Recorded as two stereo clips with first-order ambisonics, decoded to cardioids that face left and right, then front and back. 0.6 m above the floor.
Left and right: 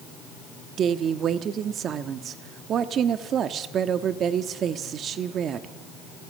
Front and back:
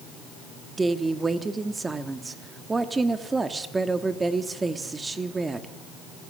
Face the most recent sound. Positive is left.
turn(degrees=-110)